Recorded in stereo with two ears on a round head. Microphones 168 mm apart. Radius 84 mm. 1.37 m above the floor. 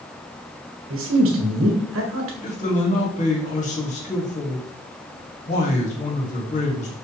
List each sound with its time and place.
0.9 s a man speaking: 80° right, 1.7 m
2.4 s a man speaking: 40° left (ahead or behind), 2.5 m